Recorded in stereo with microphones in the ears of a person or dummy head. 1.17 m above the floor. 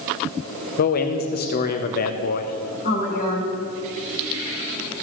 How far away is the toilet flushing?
No toilet flushing in this recording.